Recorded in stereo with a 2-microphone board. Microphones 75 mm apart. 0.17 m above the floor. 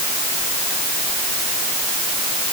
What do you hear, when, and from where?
Only background noise.